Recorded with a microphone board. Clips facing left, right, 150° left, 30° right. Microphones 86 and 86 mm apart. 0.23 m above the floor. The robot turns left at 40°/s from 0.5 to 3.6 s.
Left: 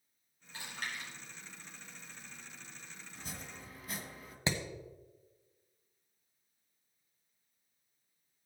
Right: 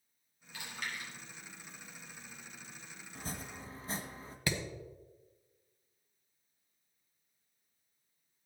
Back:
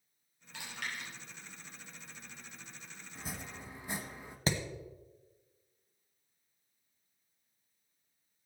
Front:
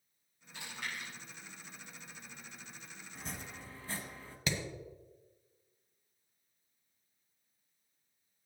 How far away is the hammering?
About 1.3 m.